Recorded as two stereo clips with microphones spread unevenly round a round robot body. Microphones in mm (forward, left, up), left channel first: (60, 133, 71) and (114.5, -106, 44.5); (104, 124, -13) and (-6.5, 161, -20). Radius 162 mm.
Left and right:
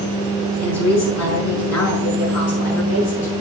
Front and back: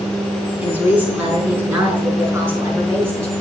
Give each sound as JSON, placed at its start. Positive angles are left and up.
{"t": 0.6, "sound": "a woman speaking", "azimuth_deg": 85, "distance_m": 5.0}